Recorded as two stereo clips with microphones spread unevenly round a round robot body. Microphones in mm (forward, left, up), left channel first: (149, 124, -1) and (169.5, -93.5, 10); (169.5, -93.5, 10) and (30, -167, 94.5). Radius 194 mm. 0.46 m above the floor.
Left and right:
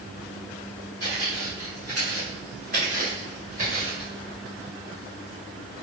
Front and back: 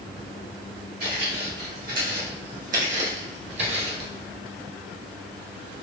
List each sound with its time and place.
1.0 s footsteps: 150° right, 2 m